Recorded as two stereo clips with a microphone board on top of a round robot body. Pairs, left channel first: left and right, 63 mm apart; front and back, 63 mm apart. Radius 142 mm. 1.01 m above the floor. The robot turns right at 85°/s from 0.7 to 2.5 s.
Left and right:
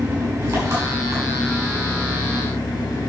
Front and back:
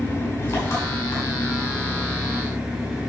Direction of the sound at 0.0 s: 50° right.